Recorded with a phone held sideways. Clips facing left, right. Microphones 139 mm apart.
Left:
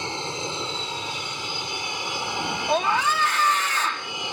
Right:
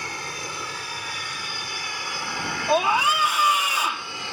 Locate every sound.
0.0 s an aircraft: 25° left (ahead or behind); by 4.3 s 20° left (ahead or behind)
2.7 s a scream: 10° right (ahead or behind)